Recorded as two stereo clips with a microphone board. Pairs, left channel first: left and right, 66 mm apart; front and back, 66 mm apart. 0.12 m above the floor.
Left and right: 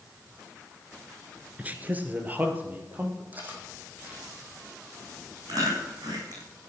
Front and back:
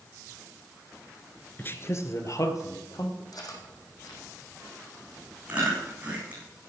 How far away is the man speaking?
About 1.3 m.